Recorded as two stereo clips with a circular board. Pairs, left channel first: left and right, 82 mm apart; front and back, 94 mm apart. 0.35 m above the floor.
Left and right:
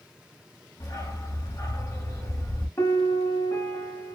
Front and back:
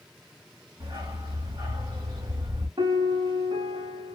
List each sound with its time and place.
0.8 s a dog barking: 135° left, 1.5 m
2.8 s a piano: 145° left, 0.8 m